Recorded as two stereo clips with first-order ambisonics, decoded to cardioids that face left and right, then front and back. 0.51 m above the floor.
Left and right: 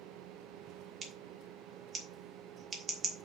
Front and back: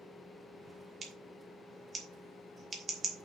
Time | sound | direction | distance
1.0 | scissors | 135° right | 1.5 m